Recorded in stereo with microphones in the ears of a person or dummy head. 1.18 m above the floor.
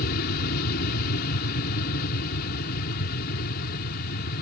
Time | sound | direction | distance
0.0 | an aircraft | 60° left (ahead or behind) | ?